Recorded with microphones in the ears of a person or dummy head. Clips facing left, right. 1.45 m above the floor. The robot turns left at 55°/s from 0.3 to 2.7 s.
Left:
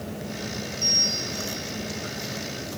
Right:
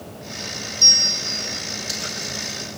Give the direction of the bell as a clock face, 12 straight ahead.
4 o'clock.